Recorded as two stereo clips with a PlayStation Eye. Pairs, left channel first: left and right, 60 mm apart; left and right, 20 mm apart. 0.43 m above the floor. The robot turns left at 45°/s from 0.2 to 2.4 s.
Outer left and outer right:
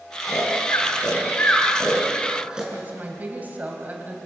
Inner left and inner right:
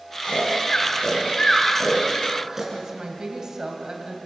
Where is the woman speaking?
30° right (ahead or behind), 2.5 m.